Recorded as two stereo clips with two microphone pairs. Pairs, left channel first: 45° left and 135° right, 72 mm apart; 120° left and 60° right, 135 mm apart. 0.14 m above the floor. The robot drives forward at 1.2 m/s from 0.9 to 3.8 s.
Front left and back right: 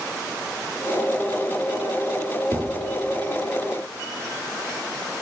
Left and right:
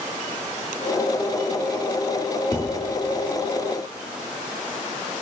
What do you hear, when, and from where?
2.5 s a thud: 170° right, 1.2 m; by 2.9 s 175° right, 1.6 m